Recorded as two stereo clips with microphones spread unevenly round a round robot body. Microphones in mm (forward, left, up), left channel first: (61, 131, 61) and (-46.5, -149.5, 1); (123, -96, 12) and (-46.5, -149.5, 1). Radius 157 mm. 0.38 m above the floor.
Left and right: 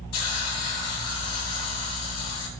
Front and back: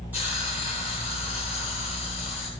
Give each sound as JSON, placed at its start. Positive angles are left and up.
{"t": 0.1, "sound": "a hiss", "azimuth_deg": 115, "distance_m": 3.5}